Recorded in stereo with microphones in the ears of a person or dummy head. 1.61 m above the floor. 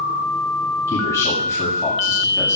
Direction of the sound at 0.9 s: 15° left (ahead or behind).